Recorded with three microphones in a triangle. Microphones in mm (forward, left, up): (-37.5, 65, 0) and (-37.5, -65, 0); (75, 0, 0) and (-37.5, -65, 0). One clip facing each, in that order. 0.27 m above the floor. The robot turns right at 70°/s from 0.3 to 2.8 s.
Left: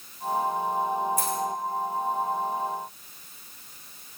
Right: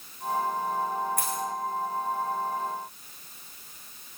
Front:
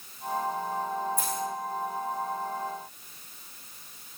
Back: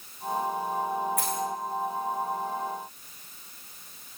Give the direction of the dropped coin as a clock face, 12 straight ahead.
4 o'clock.